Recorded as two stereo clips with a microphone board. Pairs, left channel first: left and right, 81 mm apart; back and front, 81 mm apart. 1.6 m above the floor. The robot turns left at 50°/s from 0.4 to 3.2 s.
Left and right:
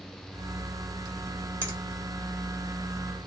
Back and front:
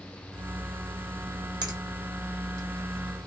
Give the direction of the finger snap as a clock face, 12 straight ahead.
1 o'clock.